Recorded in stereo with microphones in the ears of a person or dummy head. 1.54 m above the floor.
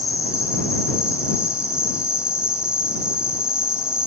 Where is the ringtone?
No ringtone in this recording.